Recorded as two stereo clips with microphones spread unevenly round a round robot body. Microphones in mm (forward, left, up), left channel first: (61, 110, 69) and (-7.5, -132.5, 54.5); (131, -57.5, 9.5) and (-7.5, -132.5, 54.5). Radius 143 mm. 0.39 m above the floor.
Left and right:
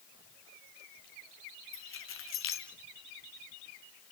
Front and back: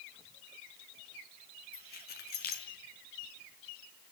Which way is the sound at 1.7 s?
35° left.